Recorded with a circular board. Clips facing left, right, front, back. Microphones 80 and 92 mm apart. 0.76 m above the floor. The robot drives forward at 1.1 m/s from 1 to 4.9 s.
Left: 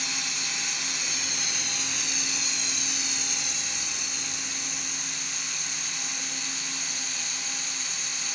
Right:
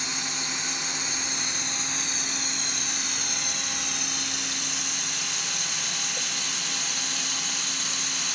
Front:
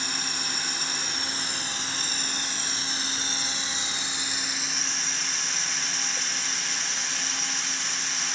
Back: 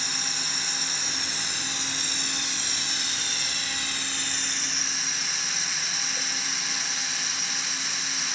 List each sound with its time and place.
0.0 s running water: 25° right, 5 m; by 8.3 s 90° right, 2 m